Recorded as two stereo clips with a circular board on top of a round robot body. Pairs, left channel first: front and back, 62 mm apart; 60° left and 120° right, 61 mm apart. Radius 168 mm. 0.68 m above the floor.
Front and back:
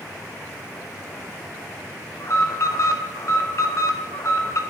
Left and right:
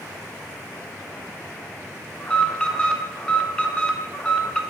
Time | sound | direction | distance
2.2 | an alarm | 10° right | 1.4 m